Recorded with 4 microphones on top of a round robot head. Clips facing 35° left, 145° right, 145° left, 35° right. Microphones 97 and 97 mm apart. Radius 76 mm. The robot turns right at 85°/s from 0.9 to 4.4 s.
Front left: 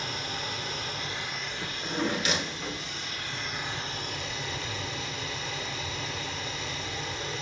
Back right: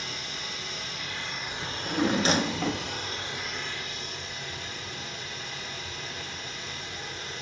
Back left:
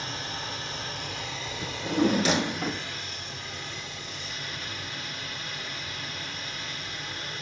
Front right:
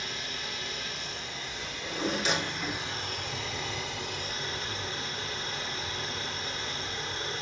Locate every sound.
0.0 s running water: 85° left, 2 m; by 7.4 s 25° left, 2 m
1.6 s a drawer: 100° left, 0.9 m; by 2.9 s 150° right, 0.9 m